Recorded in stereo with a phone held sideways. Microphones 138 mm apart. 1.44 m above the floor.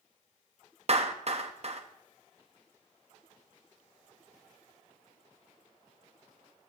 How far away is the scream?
I don't hear a scream.